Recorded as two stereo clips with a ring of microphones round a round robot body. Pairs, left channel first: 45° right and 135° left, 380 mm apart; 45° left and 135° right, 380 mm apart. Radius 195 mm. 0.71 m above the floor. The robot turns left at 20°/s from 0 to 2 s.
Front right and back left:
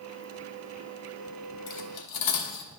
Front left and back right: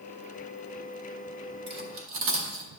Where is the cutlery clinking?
70° right, 0.8 m; by 2.7 s 80° right, 0.8 m.